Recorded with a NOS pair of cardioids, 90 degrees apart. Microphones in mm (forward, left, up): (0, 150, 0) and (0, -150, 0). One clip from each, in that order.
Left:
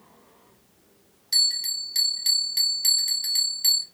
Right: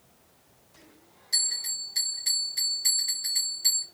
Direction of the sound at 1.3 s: 50° left.